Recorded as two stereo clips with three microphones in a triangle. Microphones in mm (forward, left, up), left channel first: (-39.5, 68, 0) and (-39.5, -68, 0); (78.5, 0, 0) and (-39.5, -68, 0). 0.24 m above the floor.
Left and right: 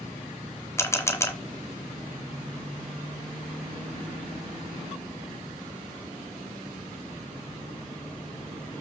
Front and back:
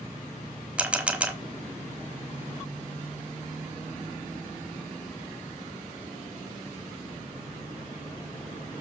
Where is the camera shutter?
140° left, 1.2 m.